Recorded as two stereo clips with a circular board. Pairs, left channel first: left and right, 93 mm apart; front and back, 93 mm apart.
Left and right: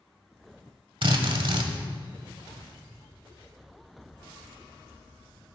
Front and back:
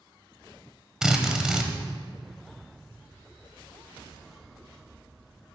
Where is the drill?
100° right, 1.2 m.